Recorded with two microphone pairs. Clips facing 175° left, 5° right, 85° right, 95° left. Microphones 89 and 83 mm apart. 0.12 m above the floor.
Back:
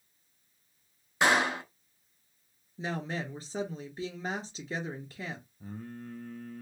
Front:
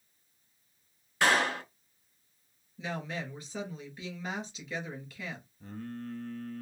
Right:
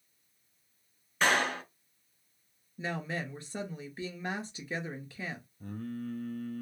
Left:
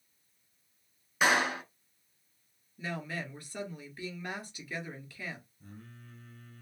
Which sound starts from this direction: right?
Singing, at 5.6 s.